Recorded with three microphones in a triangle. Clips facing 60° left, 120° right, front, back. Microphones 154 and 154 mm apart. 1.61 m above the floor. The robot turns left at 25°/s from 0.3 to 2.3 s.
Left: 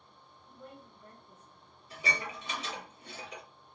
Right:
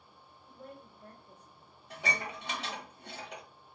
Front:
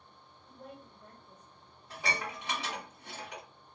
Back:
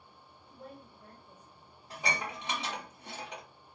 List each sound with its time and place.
0.5 s a woman speaking: 70° right, 1.3 m; by 2.9 s 115° right, 1.3 m
1.9 s dishes clattering: 110° right, 1.5 m; by 3.4 s 120° right, 1.5 m